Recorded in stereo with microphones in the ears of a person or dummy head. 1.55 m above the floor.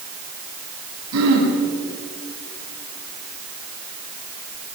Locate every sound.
1.1 s throat clearing: 85° right, 9 m